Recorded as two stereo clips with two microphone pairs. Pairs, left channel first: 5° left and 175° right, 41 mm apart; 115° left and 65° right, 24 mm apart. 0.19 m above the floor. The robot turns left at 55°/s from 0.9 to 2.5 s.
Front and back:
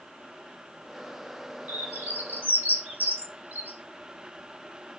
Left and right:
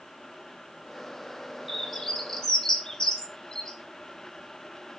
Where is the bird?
145° right, 2 m; by 3.8 s 170° left, 2 m.